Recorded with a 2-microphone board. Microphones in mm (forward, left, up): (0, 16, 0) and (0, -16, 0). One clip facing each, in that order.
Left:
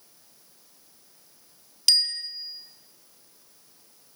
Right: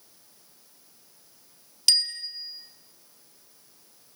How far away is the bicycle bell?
About 2 m.